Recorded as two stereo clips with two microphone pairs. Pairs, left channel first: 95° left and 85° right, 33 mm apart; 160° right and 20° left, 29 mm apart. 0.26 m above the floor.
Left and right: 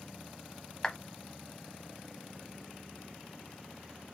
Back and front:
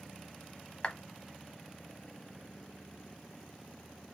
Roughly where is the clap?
Behind.